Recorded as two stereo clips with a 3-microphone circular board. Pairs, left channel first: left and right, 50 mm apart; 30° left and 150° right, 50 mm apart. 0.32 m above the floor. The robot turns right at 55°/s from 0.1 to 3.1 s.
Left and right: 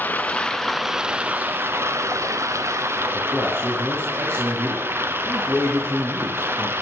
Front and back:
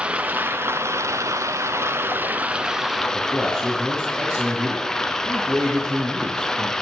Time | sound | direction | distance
0.0 | running water | 145° left | 1.1 m
3.1 | a man speaking | 90° right | 5.5 m